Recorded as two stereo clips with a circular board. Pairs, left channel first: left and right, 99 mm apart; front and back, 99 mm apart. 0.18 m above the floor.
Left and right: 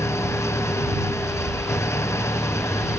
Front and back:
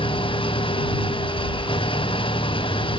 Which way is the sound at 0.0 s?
25° left.